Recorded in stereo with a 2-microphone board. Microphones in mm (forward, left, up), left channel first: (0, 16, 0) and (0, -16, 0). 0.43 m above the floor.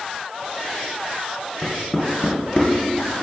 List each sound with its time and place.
1.6 s knocking: 35° left (ahead or behind), 2.0 m